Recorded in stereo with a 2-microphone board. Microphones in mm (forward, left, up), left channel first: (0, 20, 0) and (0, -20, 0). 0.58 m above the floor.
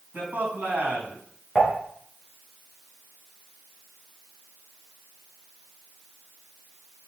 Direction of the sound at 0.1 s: 55° right (ahead or behind).